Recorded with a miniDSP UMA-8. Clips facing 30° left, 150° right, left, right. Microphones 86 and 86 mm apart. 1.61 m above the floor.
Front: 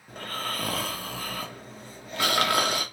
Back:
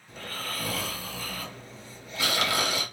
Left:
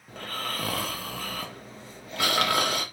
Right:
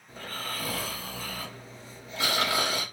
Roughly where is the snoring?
Ahead left.